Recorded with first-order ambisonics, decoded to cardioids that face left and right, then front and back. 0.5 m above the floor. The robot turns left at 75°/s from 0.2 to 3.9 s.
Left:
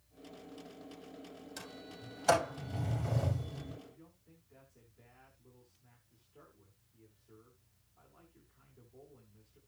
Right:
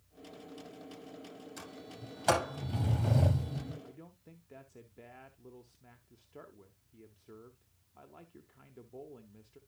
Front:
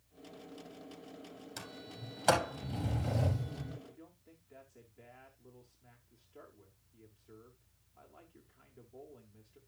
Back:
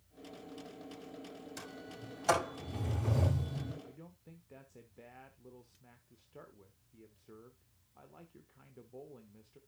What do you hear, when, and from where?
1.6 s a sliding door: 25° left, 5 m; by 3.7 s 140° right, 5 m
3.8 s a man speaking: 115° right, 1.2 m; by 9.6 s 120° right, 1.2 m